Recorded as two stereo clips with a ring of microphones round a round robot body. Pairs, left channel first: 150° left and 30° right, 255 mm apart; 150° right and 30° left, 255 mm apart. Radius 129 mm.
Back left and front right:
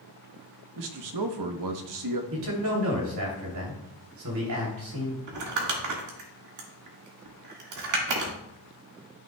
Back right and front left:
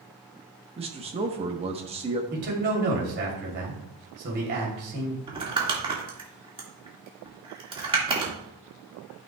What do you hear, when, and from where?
0.8 s a man speaking: 40° right, 1.0 m
2.3 s a man speaking: 20° right, 3 m
5.3 s crumpling: 40° right, 1.9 m